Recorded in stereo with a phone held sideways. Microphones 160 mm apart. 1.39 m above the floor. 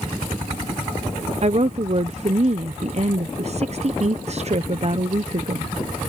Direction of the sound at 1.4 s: 45° right (ahead or behind).